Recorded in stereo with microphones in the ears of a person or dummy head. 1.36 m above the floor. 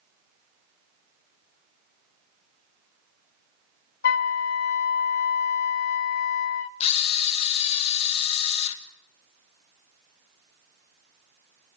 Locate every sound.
4.0 s a flute: 50° left (ahead or behind), 0.5 m
6.8 s a camera shutter: 35° left (ahead or behind), 1.8 m